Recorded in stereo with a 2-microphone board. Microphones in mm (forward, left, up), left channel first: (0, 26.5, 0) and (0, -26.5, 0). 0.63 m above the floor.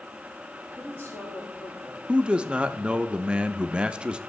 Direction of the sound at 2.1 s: 20° right (ahead or behind).